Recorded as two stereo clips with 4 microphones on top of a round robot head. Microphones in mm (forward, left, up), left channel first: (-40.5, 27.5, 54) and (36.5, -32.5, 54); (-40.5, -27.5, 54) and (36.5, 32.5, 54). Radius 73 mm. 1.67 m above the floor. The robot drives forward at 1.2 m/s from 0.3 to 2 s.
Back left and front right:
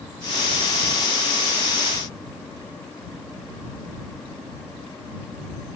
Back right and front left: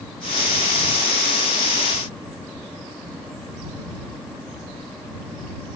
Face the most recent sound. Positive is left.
No sound to turn to.